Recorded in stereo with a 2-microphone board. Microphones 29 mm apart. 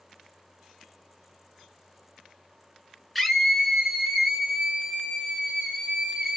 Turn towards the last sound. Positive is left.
turn(degrees=-30)  # may be behind; listen again after turning